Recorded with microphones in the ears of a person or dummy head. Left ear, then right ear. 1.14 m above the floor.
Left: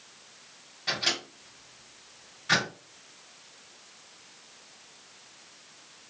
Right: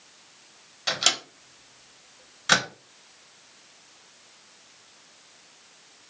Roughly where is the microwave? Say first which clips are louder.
Right 4 dB; right.